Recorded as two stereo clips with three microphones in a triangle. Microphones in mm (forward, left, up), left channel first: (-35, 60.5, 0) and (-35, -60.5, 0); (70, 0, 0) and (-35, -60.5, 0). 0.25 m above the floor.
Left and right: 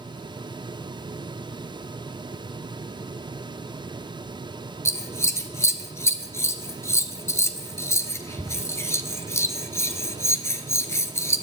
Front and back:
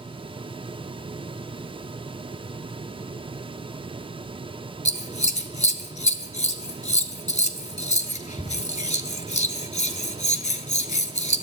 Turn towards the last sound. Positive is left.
turn(degrees=25)